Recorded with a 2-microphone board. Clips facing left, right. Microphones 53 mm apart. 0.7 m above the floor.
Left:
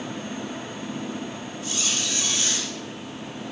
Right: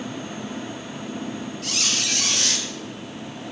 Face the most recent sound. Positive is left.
turn(degrees=-70)  # may be behind; listen again after turning